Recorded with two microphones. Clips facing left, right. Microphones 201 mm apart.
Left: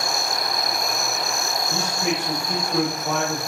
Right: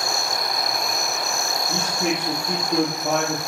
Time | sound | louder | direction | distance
1.7 | a man speaking | right 1 dB | 60° right (ahead or behind) | 4 m